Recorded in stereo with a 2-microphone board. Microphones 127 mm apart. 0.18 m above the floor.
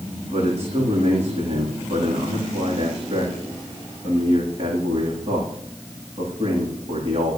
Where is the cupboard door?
No cupboard door in this recording.